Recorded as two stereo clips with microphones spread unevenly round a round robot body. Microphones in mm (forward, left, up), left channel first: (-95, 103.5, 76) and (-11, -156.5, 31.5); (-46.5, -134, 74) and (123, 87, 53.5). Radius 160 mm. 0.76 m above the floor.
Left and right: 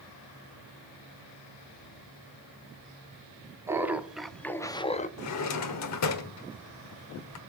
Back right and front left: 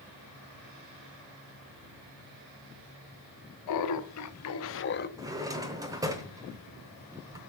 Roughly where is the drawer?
Behind left.